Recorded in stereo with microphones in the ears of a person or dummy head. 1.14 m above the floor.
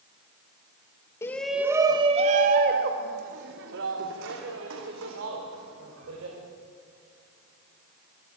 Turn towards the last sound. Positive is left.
turn(degrees=-80)